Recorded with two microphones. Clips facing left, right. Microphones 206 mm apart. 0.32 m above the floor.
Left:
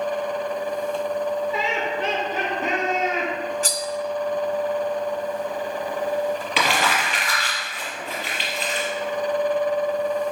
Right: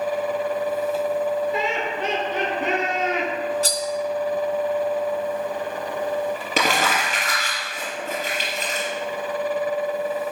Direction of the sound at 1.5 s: 55° right (ahead or behind).